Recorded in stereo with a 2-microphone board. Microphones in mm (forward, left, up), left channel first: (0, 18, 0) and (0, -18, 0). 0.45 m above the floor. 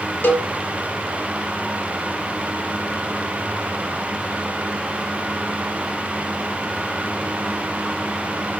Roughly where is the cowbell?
Left.